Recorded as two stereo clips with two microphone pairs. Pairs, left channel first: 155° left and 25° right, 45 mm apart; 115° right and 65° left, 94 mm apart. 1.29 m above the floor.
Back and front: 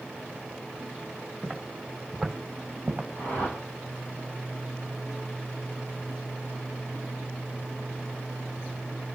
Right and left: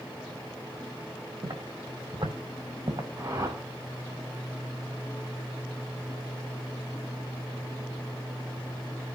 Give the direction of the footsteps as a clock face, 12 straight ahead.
9 o'clock.